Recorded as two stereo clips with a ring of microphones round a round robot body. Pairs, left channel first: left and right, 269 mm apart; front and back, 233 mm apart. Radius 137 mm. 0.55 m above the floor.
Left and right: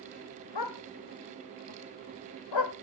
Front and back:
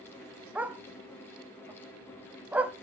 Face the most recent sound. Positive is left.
turn(degrees=95)